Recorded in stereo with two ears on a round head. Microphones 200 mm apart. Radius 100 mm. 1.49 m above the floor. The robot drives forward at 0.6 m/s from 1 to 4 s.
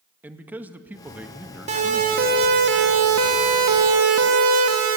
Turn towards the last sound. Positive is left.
turn(degrees=-65)  # may be behind; listen again after turning